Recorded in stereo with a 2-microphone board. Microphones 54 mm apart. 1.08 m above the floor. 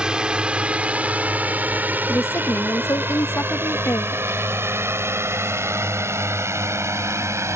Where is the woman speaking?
60° left (ahead or behind).